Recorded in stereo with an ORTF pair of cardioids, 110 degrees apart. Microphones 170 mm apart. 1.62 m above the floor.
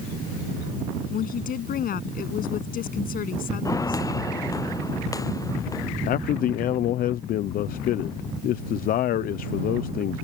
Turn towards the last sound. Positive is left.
turn(degrees=60)